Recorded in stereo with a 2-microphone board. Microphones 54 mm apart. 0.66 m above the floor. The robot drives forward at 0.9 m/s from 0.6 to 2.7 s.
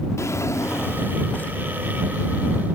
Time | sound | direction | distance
0.2 | a drawer | 50° left (ahead or behind) | 0.8 m